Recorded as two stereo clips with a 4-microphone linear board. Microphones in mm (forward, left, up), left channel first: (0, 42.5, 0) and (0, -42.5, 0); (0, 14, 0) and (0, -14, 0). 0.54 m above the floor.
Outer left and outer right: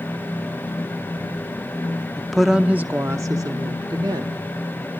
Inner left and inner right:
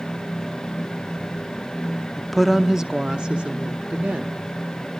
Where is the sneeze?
I don't hear a sneeze.